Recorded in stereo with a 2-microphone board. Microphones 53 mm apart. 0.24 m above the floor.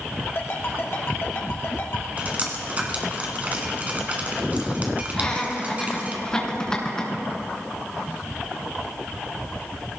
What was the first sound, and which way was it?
A ringtone, 50° left (ahead or behind).